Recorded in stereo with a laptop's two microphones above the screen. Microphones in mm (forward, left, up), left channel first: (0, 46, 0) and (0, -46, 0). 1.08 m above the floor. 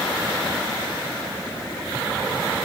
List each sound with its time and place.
Only background noise.